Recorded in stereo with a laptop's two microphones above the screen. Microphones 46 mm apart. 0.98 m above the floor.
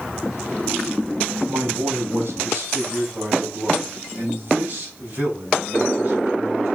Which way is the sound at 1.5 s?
70° right (ahead or behind).